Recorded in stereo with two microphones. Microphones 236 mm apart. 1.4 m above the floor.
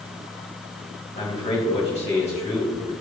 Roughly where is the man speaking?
Left.